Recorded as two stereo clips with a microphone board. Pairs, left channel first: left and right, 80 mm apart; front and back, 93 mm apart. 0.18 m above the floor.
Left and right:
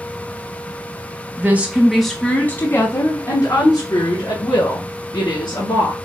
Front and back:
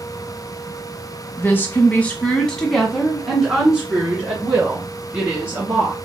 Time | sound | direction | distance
1.4 | a woman speaking | 50° right | 1.2 m